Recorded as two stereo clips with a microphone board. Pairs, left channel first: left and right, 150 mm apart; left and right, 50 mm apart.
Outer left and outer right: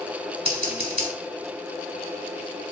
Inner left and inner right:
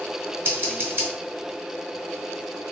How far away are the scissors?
About 1.8 m.